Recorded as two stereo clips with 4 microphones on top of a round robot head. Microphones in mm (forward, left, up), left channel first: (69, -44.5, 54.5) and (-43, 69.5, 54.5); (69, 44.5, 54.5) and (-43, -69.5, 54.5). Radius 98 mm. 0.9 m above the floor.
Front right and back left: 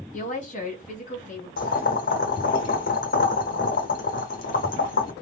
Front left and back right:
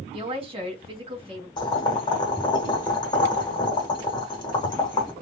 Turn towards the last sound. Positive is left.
turn(degrees=-15)